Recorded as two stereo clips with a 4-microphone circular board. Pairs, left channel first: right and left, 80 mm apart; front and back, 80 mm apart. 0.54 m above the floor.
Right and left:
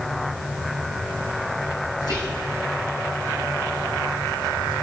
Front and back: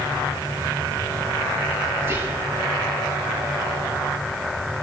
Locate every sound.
2.0 s whispering: 120° right, 5 m